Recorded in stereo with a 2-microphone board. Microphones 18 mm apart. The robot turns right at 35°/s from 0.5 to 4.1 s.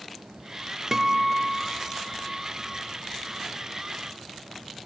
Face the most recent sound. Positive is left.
turn(degrees=55)